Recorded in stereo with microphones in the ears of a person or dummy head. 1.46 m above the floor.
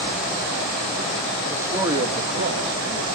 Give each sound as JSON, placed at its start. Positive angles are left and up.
{"t": 1.5, "sound": "a man speaking", "side_deg": -10, "distance_m": 2.5}